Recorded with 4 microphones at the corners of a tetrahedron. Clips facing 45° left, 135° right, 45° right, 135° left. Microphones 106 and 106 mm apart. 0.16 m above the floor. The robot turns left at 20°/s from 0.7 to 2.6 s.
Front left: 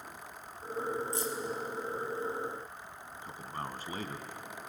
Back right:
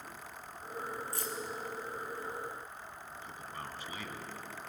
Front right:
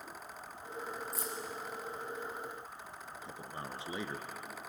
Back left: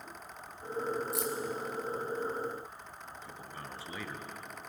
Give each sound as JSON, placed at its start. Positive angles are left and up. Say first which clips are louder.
{"t": 1.1, "sound": "keys jangling", "louder": "front left 5 dB, back left 7 dB", "azimuth_deg": 115, "distance_m": 3.0}
{"t": 3.2, "sound": "a man speaking", "louder": "front left 6 dB, front right 3 dB", "azimuth_deg": 15, "distance_m": 1.9}